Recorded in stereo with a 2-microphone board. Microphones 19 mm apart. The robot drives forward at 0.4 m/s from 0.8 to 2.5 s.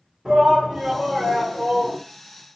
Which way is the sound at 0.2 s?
55° right (ahead or behind).